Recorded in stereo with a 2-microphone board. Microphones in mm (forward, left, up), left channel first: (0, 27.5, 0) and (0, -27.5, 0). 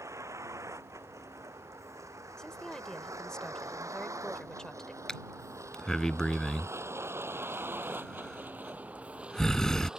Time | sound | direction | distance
0.0 | a vehicle | 75° right (ahead or behind) | ?
2.4 | a woman speaking | 15° left (ahead or behind) | ?
5.1 | breathing | 10° left (ahead or behind) | ?